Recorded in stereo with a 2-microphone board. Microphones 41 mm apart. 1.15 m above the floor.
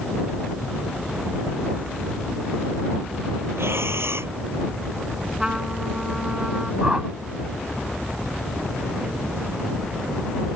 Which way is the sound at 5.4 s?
15° right (ahead or behind).